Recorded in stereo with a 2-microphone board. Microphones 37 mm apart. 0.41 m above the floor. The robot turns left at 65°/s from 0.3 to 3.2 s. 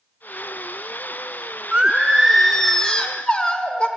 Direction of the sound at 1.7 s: 135° right.